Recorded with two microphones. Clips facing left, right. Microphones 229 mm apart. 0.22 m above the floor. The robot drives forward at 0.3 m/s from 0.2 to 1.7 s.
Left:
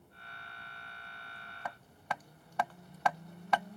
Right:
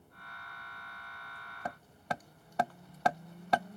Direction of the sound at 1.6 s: 40° right (ahead or behind).